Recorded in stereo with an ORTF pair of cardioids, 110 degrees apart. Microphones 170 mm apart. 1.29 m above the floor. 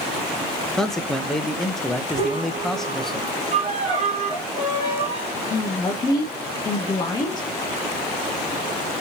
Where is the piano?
55° right, 2.5 m.